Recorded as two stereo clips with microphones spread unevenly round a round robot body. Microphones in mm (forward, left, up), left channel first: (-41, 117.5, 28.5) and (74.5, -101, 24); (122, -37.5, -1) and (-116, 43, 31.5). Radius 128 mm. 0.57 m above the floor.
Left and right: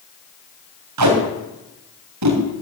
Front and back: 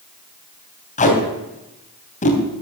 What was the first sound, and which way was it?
Tape being pulled, 80° right.